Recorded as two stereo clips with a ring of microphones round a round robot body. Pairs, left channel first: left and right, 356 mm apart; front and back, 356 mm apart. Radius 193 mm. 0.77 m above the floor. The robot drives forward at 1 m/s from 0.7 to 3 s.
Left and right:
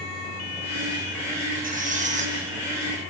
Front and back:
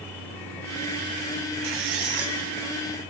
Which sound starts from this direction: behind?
A squeak, at 1.6 s.